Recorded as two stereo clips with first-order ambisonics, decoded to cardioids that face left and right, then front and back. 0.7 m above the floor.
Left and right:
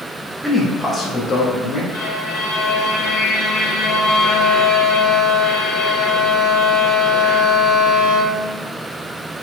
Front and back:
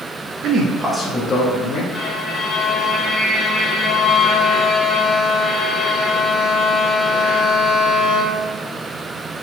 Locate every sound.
0.4 s a man speaking: 175° right, 1.2 m; by 1.8 s 35° left, 1.7 m
1.9 s a violin: 75° left, 3 m